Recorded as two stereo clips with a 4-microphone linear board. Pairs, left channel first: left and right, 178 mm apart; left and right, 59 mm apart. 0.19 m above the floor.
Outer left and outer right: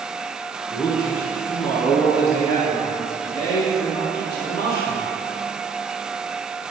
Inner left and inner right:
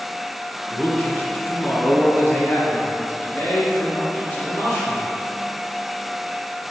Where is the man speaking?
25° left (ahead or behind), 1.7 m.